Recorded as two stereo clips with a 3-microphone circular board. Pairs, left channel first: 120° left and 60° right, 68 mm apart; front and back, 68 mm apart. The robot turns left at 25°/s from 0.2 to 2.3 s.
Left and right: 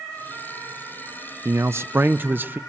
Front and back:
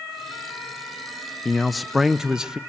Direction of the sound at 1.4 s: 85° right.